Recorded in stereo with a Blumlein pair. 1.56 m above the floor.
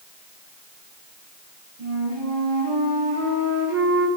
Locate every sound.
1.8 s a flute: 55° right, 4 m